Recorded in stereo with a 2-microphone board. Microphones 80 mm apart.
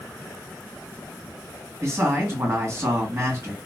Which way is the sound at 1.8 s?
40° right (ahead or behind).